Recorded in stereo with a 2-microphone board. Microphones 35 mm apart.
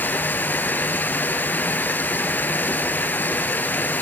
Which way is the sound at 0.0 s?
70° left (ahead or behind).